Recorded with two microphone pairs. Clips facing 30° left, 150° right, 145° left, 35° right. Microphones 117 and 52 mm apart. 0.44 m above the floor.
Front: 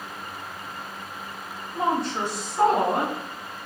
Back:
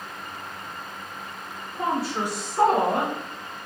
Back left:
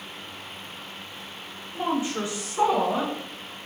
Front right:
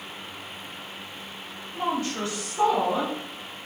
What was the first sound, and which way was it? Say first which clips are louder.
A woman speaking: front 1 dB, back left 1 dB; 90° left.